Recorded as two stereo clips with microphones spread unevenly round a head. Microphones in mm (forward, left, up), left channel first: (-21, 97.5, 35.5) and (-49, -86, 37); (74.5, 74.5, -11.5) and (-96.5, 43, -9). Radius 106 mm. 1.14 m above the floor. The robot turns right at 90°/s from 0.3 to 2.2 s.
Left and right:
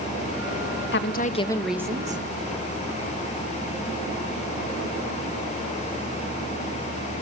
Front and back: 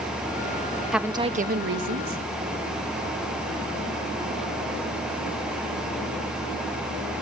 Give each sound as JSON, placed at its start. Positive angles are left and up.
{"t": 0.9, "sound": "a woman speaking", "azimuth_deg": 105, "distance_m": 1.2}